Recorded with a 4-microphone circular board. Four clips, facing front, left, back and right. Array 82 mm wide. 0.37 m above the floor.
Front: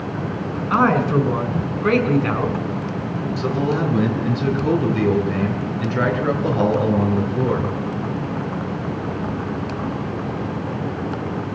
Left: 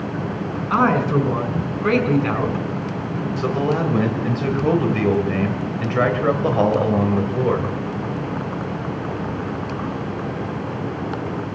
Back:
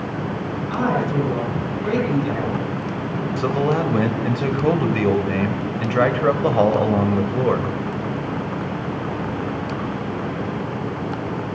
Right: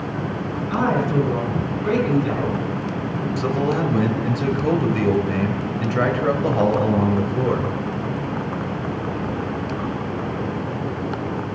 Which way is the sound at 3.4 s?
160° left.